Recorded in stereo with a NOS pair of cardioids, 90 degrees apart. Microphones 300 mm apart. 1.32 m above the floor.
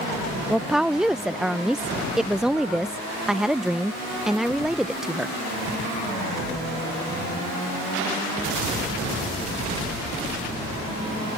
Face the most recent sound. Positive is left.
turn(degrees=0)